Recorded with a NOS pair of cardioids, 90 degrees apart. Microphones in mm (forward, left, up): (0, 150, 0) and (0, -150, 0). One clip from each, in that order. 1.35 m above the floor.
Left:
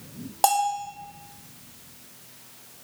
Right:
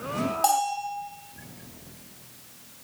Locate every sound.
0.4 s a bell: 30° left, 0.6 m